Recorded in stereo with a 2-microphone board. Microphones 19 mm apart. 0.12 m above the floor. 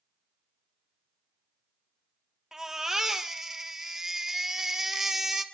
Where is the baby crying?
20° right (ahead or behind), 2 m.